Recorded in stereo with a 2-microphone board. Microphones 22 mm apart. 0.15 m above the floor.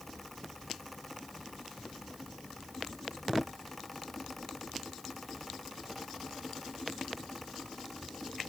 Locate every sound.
Only background noise.